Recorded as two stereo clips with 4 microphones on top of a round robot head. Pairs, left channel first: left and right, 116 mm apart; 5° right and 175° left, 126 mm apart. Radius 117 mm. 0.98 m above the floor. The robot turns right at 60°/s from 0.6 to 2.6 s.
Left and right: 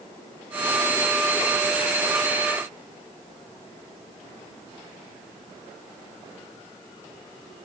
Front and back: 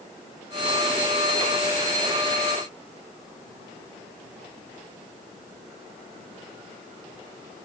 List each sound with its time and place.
Only background noise.